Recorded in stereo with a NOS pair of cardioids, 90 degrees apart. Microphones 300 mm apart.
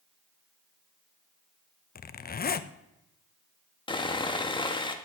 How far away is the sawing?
About 1.8 m.